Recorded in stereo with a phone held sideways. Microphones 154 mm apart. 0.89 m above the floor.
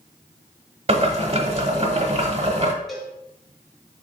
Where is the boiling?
40° right (ahead or behind), 0.8 m.